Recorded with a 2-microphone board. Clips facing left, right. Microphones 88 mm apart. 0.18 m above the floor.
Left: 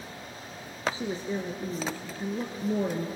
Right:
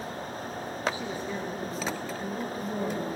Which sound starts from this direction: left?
A woman speaking, at 0.9 s.